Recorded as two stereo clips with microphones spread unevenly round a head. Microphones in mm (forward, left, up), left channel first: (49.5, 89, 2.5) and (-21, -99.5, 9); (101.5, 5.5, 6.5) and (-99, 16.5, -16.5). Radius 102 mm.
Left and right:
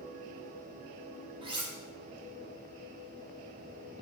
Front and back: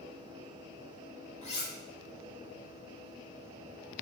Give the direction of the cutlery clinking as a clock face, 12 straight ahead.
2 o'clock.